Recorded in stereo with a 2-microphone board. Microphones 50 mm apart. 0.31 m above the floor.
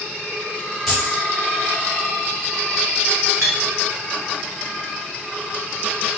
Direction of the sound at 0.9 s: 10° left (ahead or behind).